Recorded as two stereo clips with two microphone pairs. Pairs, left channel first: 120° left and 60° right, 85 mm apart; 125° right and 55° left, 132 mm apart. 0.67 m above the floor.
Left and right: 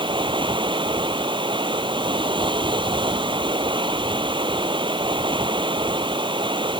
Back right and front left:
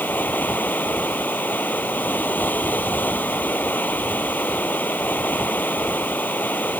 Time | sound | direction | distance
0.0 | running water | 50° right | ?